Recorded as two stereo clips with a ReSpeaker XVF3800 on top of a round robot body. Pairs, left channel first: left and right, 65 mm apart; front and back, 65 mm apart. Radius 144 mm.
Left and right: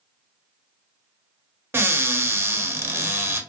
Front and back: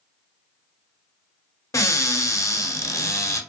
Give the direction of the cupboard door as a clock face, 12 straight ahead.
1 o'clock.